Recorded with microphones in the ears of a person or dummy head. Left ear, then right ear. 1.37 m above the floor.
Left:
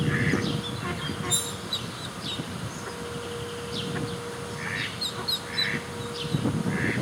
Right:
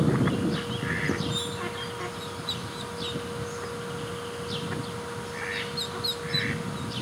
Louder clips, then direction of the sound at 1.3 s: Left 2 dB; 40° left (ahead or behind).